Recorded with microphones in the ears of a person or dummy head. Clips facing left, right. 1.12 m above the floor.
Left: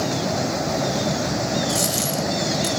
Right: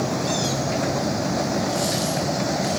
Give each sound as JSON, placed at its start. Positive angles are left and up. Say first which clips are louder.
{"t": 1.7, "sound": "a dropped coin", "louder": "right 1 dB", "side_deg": 65, "distance_m": 2.0}